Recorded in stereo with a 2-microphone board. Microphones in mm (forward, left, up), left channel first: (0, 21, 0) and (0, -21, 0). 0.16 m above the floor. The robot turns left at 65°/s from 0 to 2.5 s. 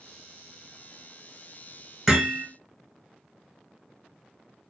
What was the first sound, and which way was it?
Hammering, 10° right (ahead or behind).